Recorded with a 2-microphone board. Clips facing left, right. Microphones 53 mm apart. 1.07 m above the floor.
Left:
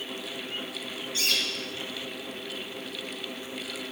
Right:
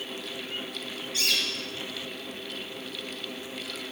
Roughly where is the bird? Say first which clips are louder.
Even; right.